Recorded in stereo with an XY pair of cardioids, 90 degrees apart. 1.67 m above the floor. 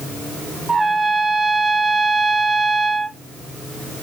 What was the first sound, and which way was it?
A trumpet, 35° right.